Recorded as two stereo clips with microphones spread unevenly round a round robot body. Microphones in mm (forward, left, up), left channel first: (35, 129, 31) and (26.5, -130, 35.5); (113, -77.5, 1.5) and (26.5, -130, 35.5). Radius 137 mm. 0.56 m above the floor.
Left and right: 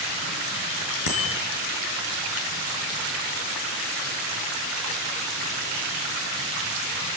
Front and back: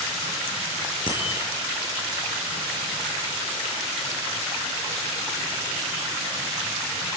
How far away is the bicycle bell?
About 6.5 m.